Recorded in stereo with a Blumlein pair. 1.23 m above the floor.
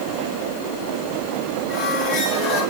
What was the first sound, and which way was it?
A squeak, 40° left.